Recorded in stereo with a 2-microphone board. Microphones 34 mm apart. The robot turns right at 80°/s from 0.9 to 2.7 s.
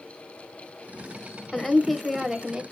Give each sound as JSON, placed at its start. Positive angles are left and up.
{"t": 1.5, "sound": "a woman speaking", "side_deg": 15, "distance_m": 0.9}